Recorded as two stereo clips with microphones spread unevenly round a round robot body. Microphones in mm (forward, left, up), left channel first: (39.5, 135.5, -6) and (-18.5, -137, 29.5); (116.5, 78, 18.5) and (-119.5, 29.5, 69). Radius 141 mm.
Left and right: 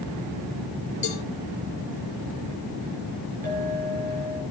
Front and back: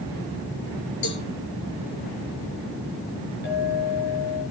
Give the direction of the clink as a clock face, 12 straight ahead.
1 o'clock.